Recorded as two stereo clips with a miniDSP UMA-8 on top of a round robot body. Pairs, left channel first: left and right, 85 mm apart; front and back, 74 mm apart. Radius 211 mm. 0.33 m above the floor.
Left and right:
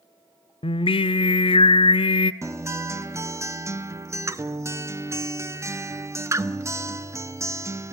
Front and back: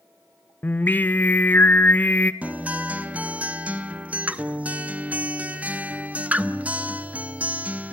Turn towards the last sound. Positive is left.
turn(degrees=-120)